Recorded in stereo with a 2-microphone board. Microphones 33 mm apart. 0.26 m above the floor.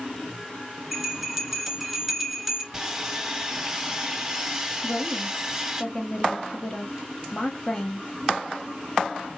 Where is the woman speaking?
30° left (ahead or behind), 1.1 m.